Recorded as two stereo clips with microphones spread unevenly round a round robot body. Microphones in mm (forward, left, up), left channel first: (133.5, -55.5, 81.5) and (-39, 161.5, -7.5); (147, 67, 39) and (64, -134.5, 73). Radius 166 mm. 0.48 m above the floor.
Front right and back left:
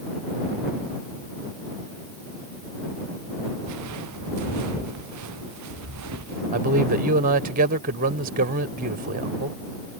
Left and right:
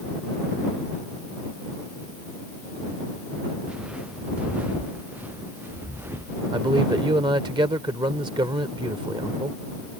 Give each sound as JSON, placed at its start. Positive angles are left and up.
{"t": 3.6, "sound": "footsteps", "azimuth_deg": 160}
{"t": 6.5, "sound": "a man speaking", "azimuth_deg": 170}